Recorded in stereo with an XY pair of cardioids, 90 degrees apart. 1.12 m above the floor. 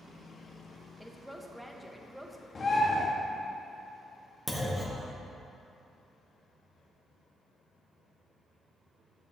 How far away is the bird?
About 1.4 m.